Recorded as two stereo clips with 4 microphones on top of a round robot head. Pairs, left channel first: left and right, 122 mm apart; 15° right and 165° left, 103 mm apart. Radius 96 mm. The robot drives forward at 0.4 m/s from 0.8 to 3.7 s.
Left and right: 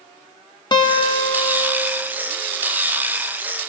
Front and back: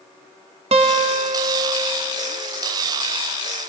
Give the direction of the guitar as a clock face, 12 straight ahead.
7 o'clock.